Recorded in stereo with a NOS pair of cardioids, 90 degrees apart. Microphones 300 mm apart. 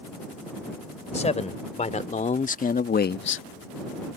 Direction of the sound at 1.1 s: 20° left.